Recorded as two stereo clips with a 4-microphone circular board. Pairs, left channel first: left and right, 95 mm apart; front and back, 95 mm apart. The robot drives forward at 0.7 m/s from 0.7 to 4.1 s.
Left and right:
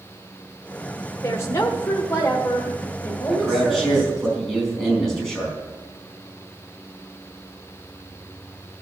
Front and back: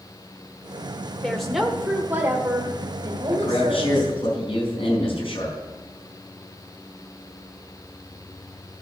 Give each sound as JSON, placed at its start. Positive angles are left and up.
{"t": 1.2, "sound": "a woman speaking", "azimuth_deg": 75, "distance_m": 1.2}
{"t": 3.3, "sound": "a man speaking", "azimuth_deg": 5, "distance_m": 5.0}